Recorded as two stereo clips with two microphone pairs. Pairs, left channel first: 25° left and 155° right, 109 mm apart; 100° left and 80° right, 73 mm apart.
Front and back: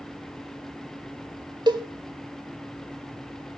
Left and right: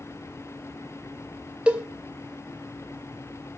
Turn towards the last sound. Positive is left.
turn(degrees=-145)